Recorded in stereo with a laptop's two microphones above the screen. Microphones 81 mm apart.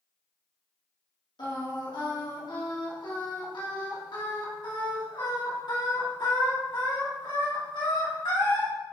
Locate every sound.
1.4 s singing: 70° left (ahead or behind), 2.5 m